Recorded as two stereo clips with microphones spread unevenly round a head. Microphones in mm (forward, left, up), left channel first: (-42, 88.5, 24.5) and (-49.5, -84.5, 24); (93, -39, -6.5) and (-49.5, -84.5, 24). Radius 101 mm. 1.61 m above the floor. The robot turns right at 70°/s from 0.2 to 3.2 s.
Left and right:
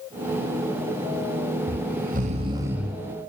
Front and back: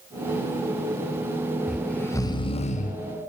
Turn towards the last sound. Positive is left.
turn(degrees=20)